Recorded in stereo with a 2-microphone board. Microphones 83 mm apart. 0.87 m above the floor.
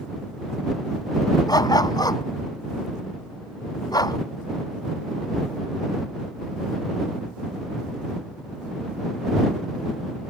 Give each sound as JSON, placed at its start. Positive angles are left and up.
{"t": 1.5, "sound": "a dog barking", "side_deg": 50}